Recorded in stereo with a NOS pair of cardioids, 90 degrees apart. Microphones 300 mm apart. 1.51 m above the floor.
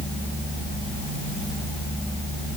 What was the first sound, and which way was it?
Only background noise.